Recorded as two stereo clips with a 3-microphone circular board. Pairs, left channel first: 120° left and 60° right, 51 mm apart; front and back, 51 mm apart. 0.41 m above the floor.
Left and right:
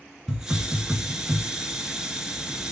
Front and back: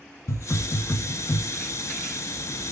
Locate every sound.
0.3 s a hiss: 20° left, 0.9 m